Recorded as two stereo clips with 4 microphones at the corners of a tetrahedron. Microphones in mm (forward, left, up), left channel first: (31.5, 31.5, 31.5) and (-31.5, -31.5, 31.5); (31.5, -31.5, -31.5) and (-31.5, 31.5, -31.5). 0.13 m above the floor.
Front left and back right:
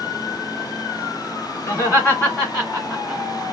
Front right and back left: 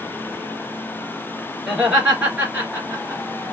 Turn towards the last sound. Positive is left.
turn(degrees=140)